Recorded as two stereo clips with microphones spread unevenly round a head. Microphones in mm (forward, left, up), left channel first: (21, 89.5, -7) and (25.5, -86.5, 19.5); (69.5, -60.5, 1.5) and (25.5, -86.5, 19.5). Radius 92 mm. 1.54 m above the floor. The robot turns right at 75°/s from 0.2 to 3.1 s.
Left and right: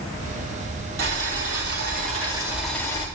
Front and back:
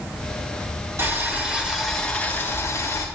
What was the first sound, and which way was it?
Boiling, 125° right.